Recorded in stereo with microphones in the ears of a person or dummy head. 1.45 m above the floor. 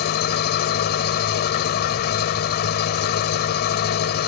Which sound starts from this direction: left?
An engine running, at 0.0 s.